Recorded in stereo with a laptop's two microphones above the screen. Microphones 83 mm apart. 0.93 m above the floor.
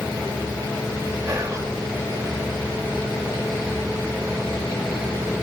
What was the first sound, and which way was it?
Whispering, 40° right (ahead or behind).